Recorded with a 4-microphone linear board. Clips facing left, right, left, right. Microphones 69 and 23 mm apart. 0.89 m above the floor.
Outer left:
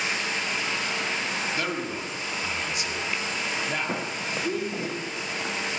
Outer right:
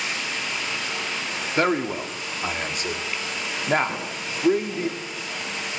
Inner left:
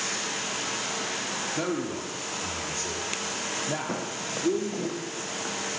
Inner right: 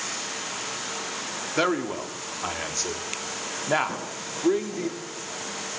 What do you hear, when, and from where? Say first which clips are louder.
0.0 s running water: outer left 1 dB, inner left 1 dB; 25° left (ahead or behind), 10 m
1.6 s a man speaking: outer right 7 dB, inner right 10 dB; 50° right (ahead or behind), 2 m
3.9 s footsteps: outer left 1 dB, inner left 2 dB; 30° left (ahead or behind), 4 m; by 5.5 s 35° left (ahead or behind), 6 m